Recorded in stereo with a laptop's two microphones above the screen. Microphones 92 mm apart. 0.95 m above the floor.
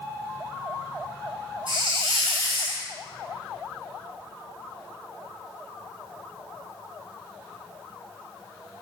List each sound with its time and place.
1.7 s a hiss: 60° right (ahead or behind), 3.5 m